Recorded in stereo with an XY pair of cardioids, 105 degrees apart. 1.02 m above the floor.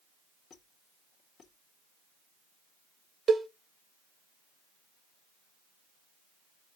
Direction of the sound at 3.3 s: 40° right.